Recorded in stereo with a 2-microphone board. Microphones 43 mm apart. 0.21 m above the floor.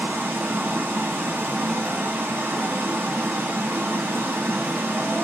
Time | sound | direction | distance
0.0 | running water | 60° right (ahead or behind) | 1.6 m